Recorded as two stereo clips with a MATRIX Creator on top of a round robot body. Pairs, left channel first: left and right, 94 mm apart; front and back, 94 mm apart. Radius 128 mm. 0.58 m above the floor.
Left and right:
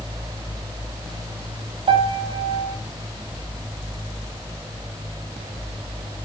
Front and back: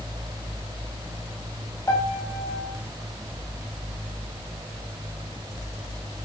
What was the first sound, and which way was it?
A piano, 65° right.